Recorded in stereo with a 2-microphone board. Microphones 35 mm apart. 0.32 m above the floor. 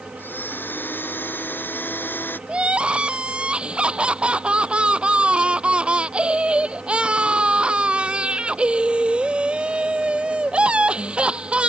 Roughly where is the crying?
Right.